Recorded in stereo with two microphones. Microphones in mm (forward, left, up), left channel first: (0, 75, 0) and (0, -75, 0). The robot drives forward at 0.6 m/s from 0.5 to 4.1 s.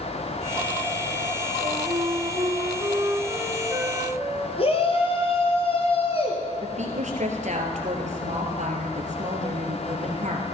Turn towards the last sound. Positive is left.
turn(degrees=-55)  # may be behind; listen again after turning